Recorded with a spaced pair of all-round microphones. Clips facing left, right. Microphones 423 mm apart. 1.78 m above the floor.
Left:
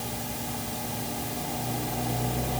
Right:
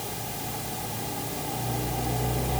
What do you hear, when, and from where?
Only background noise.